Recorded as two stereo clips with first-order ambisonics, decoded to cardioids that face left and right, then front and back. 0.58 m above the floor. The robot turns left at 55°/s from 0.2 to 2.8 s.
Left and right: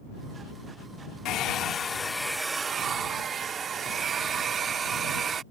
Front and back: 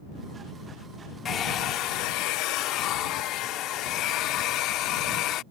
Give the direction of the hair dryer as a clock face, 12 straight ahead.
10 o'clock.